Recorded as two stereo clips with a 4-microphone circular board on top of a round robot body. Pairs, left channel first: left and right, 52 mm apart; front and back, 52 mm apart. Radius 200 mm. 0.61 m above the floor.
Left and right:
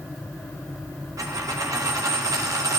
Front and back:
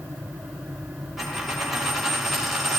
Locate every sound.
1.2 s a dropped coin: 90° right, 1.1 m